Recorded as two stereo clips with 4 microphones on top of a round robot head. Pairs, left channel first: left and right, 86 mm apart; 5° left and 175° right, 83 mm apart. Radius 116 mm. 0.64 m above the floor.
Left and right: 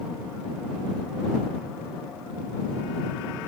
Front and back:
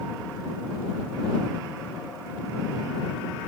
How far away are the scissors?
No scissors in this recording.